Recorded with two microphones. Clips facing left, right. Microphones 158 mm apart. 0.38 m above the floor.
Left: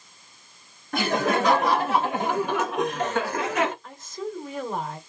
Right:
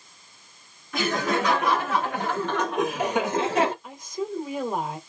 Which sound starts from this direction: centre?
A woman speaking, at 3.8 s.